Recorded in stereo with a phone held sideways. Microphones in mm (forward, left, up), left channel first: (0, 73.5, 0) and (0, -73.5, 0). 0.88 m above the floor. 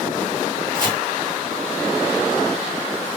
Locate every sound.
0.7 s chopping: 30° right (ahead or behind), 2.5 m